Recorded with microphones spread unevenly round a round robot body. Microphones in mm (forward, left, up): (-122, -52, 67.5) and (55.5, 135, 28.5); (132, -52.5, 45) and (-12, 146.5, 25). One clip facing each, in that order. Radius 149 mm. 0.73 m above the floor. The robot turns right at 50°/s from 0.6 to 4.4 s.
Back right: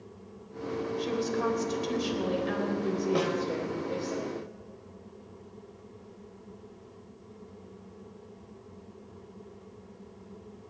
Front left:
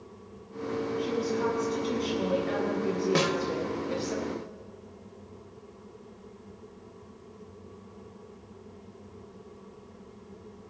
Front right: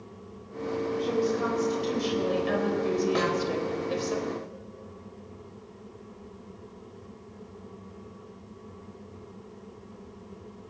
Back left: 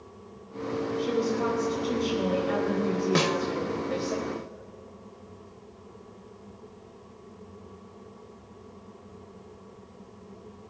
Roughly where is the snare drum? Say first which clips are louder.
Front left 1 dB, back left 1 dB; left.